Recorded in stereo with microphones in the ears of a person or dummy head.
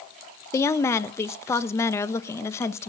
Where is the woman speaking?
20° left (ahead or behind), 1.0 m.